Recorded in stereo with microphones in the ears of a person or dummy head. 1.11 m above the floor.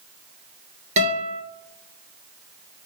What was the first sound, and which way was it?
A guitar, 40° right (ahead or behind).